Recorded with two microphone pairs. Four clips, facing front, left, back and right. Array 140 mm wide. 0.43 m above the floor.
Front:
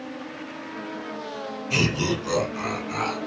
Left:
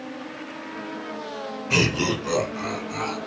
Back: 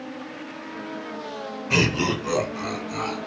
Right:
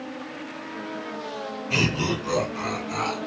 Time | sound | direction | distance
1.7 | laughter | 140° left | 1.5 m